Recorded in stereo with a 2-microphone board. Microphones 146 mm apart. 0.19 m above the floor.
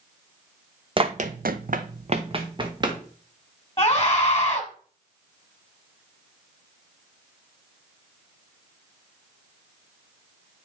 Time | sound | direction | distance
1.0 | running footsteps | 35° right (ahead or behind) | 0.7 m
3.8 | a scream | 25° left (ahead or behind) | 1.5 m